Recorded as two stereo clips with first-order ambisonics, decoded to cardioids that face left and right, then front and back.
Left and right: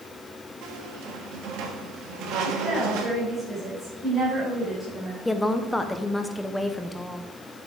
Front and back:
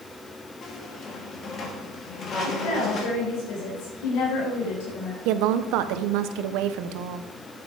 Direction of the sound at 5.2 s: 175° left.